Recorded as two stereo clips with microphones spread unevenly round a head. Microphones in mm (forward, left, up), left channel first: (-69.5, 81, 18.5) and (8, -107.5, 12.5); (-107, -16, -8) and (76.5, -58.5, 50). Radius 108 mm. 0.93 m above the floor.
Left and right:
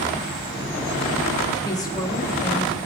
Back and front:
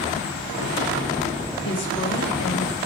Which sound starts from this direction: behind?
A woman speaking, at 1.6 s.